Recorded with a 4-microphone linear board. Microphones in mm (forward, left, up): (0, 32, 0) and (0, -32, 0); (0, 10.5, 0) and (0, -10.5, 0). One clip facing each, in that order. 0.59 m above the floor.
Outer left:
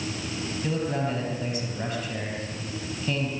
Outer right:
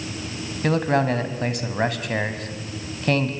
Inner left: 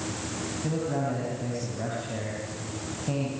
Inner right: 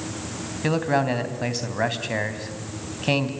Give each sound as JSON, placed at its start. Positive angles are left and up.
{"t": 0.6, "sound": "a man speaking", "side_deg": -80, "distance_m": 3.5}